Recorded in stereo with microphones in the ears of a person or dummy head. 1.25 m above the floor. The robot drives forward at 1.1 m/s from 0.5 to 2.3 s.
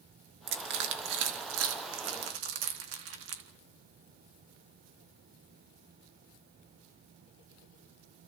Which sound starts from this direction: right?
Crushing, at 0.5 s.